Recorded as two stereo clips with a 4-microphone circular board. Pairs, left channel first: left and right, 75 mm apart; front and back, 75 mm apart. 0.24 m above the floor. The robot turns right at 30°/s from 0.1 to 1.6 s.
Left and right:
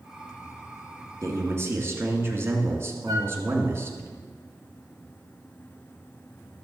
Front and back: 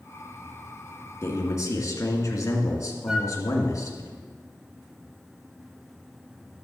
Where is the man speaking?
50° right, 2 m; by 4.1 s 40° right, 2 m.